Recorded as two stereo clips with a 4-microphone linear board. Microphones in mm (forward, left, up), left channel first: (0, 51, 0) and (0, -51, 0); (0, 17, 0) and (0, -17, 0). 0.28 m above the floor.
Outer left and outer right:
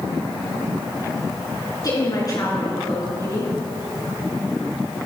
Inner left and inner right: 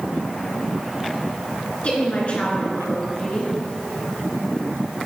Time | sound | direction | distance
1.8 | a woman speaking | 40° left (ahead or behind) | 3.5 m